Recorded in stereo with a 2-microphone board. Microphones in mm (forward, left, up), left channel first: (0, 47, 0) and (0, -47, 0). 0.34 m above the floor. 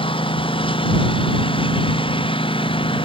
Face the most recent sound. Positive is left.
turn(degrees=70)  # may be behind; listen again after turning